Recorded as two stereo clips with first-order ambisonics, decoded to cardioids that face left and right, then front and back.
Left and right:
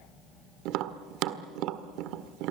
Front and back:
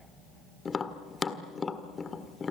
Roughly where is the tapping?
Right.